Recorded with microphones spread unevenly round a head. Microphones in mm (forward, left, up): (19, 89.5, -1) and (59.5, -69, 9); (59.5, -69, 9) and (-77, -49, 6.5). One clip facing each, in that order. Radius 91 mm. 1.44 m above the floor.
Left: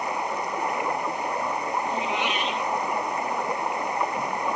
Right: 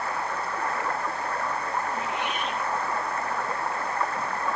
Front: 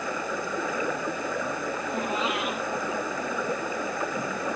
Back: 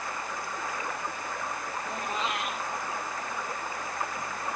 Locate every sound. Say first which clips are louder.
0.0 s running water: left 2 dB, front 6 dB; 30° left
1.9 s a cat meowing: left 3 dB, front 4 dB; 80° left